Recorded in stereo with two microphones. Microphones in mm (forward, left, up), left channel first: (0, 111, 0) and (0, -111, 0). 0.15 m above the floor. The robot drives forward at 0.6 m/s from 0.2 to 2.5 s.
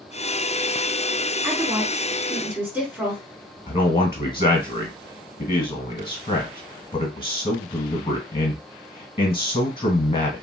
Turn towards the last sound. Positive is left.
turn(degrees=25)  # may be behind; listen again after turning